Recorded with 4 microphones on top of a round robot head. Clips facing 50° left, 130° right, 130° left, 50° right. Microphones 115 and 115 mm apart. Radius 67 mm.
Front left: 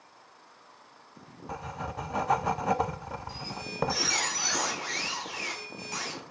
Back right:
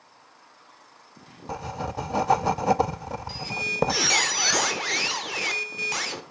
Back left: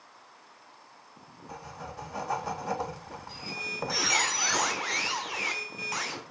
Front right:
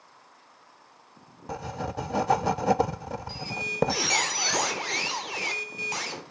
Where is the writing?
75° right, 0.5 m.